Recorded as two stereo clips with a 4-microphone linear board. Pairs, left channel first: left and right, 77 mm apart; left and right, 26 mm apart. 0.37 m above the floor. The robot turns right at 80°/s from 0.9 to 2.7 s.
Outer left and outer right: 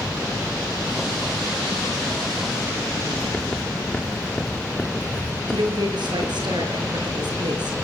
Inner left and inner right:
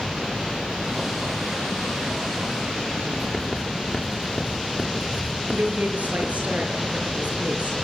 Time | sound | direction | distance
3.1 | writing | 15° left (ahead or behind) | 7.5 m
5.5 | a woman speaking | 75° right (ahead or behind) | 5.5 m